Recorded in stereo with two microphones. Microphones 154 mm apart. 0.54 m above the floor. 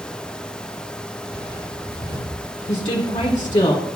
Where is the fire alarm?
I don't hear a fire alarm.